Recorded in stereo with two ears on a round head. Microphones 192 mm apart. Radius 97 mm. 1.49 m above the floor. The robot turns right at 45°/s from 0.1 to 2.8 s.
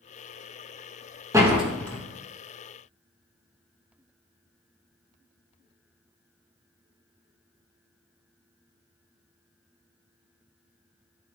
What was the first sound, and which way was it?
A door slam, 15° right (ahead or behind).